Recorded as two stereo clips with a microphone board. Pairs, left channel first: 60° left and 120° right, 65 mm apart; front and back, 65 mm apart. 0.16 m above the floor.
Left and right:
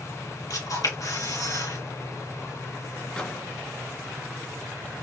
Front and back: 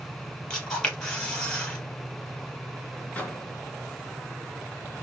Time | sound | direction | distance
0.5 | a camera shutter | 70° left | 3.5 m
3.1 | a microwave | 15° left | 1.1 m